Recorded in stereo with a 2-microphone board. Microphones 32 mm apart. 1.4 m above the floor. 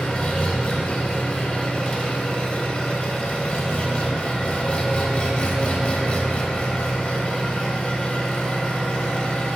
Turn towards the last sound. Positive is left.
turn(degrees=30)  # may be behind; listen again after turning